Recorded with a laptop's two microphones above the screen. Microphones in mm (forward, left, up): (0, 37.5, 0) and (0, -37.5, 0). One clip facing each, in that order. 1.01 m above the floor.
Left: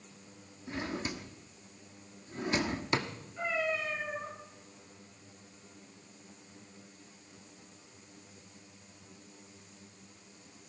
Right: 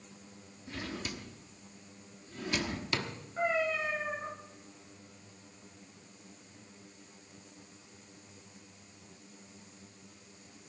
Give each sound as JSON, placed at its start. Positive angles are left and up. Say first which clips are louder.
{"t": 0.7, "sound": "a drawer", "louder": "left 3 dB", "side_deg": 25, "distance_m": 1.1}
{"t": 3.4, "sound": "a cat meowing", "louder": "right 2 dB", "side_deg": -40, "distance_m": 9.5}